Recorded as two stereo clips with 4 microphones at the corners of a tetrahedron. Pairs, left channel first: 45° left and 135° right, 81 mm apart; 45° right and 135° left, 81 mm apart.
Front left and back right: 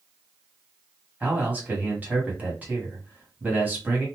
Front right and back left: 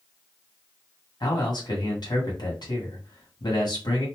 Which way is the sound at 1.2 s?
65° right.